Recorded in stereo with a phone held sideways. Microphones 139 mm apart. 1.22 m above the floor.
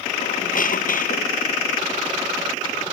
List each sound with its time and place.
0.2 s a squeak: 85° left